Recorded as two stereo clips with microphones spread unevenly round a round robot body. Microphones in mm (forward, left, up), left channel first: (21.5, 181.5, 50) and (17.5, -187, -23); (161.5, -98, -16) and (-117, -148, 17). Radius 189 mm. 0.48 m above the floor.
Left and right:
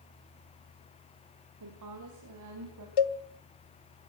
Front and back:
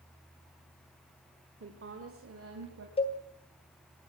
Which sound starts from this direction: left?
A cowbell, at 3.0 s.